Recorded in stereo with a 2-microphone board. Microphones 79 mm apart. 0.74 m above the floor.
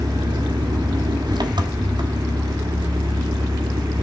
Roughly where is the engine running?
Right.